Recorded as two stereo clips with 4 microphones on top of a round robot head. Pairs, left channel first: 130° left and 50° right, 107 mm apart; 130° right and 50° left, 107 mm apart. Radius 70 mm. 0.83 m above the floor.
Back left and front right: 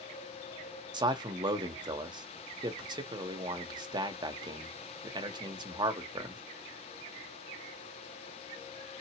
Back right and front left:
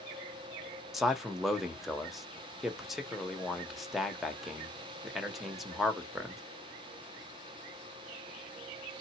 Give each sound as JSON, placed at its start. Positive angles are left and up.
{"t": 0.9, "sound": "a man speaking", "azimuth_deg": -35, "distance_m": 1.1}